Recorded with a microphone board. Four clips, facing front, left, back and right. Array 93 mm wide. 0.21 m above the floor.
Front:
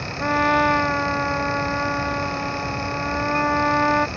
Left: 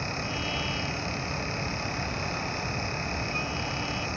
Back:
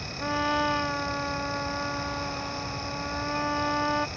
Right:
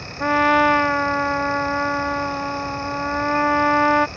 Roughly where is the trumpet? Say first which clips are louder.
Right 17 dB, front 8 dB; right.